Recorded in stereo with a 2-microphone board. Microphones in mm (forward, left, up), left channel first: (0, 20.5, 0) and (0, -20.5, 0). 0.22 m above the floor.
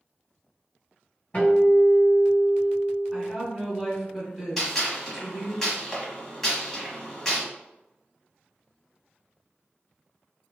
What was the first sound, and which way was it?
A guitar, 35° left (ahead or behind).